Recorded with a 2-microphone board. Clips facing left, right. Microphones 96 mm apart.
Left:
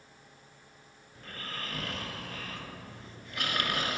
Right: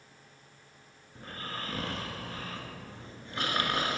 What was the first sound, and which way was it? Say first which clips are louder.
Snoring: right 2 dB; 30° right (ahead or behind).